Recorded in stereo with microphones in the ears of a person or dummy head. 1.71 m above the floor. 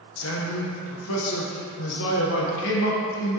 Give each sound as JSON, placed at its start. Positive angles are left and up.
{"t": 0.2, "sound": "a man speaking", "side_deg": 80, "distance_m": 1.5}